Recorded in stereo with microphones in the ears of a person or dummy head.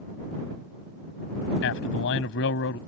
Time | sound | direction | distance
1.6 | a man speaking | 60° left (ahead or behind) | ?